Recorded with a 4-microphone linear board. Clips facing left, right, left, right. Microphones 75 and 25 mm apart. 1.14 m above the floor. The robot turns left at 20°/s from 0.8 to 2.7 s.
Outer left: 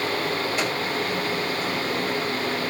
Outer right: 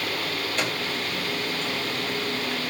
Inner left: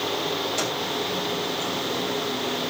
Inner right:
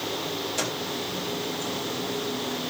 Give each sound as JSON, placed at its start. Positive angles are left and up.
{"t": 0.6, "sound": "a microwave", "side_deg": 5, "distance_m": 6.0}